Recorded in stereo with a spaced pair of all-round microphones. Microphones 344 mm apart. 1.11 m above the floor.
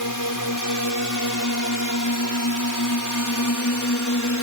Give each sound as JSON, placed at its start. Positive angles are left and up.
{"t": 0.0, "sound": "a drone", "side_deg": 75}